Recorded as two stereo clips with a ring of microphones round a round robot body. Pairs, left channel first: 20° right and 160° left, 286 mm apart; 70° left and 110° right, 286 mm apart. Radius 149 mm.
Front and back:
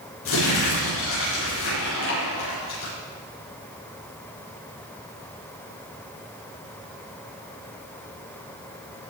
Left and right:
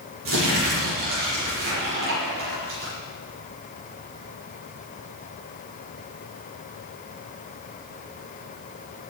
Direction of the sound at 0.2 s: 65° right.